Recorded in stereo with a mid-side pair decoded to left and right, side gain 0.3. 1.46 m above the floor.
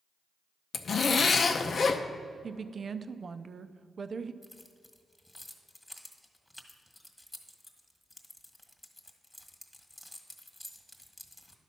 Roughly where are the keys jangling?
Ahead.